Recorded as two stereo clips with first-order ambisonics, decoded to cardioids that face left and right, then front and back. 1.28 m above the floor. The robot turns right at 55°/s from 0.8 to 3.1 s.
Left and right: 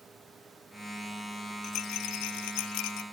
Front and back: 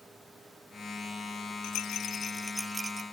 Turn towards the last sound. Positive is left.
turn(degrees=120)